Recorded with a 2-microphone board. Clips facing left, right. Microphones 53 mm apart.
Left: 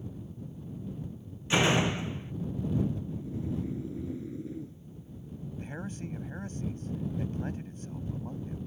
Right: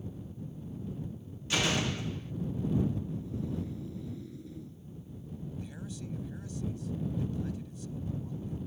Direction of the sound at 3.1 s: 25° left (ahead or behind).